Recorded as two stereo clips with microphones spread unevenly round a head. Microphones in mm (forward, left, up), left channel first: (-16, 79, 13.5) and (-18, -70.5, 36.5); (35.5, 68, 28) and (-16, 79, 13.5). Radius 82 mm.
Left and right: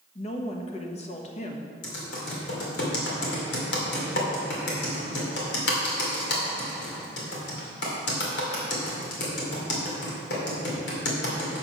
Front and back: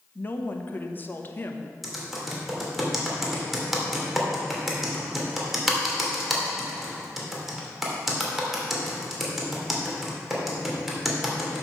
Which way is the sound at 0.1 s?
45° left.